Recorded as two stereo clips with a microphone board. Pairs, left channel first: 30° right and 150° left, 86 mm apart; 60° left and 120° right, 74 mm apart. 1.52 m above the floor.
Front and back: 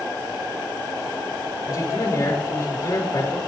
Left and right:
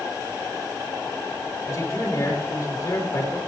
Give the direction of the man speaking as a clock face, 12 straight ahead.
12 o'clock.